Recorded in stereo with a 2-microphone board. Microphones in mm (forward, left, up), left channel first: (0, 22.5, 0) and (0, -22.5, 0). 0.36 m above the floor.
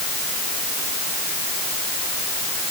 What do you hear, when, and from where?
Only background noise.